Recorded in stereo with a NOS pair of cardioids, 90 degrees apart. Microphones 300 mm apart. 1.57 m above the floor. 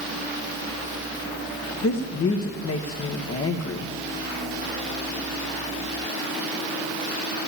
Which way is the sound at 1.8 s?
50° left.